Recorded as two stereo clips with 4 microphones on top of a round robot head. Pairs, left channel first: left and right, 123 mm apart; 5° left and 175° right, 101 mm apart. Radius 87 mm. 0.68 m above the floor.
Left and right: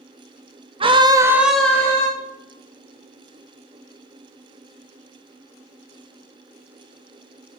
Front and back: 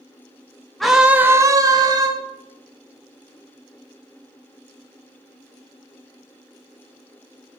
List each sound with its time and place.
0.8 s a scream: 80° right, 1.3 m; by 2.1 s 150° left, 1.6 m